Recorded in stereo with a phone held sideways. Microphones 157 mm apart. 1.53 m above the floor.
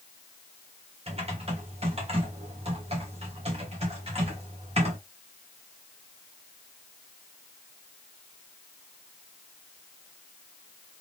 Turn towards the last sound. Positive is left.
turn(degrees=-45)  # may be behind; listen again after turning